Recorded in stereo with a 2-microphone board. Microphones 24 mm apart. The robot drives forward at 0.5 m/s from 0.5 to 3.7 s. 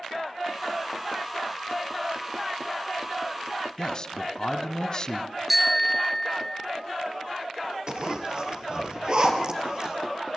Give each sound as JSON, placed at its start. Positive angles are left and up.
{"t": 3.8, "sound": "a man speaking", "side_deg": 35, "distance_m": 1.2}
{"t": 5.5, "sound": "a bicycle bell", "side_deg": -10, "distance_m": 2.5}
{"t": 7.9, "sound": "a zipper", "side_deg": -45, "distance_m": 3.5}